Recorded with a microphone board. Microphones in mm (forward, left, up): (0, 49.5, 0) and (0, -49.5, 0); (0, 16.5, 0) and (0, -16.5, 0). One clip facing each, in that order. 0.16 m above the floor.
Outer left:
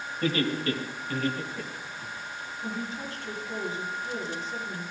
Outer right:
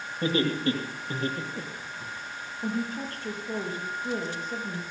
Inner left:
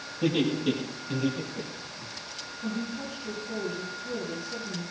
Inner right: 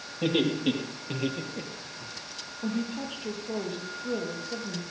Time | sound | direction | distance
0.2 | laughter | 30° right (ahead or behind) | 5.5 m
2.6 | a woman speaking | 50° right (ahead or behind) | 5 m